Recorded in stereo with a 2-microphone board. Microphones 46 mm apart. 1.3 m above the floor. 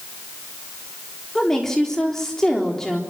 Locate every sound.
1.4 s a woman speaking: 10° left (ahead or behind), 4 m